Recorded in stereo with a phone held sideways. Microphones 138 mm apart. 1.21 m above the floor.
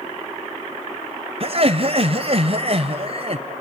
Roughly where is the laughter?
Right.